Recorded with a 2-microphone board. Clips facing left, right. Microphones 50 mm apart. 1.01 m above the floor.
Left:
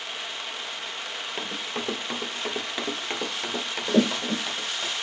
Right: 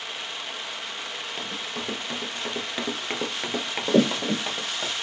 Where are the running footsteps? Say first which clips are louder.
Left 2 dB; 30° left (ahead or behind), 1.4 m; by 4.9 s 35° right (ahead or behind), 2 m.